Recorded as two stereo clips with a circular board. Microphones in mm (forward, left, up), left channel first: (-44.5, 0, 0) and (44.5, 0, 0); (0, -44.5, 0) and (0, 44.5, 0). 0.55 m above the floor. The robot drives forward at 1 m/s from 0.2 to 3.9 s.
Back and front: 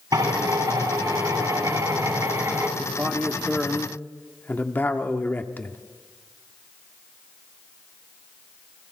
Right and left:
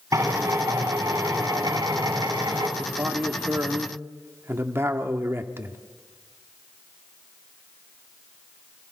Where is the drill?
40° left, 7.5 m; by 2.7 s 55° left, 5.5 m.